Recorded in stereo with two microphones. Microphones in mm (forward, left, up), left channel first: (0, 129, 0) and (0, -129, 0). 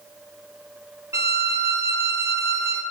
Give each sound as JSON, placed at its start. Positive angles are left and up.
{"t": 1.1, "sound": "a violin", "side_deg": -10, "distance_m": 0.7}